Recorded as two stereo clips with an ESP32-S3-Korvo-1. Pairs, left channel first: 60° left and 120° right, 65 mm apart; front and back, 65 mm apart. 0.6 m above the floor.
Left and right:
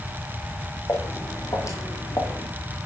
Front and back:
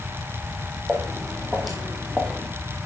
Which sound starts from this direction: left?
Footsteps, at 0.9 s.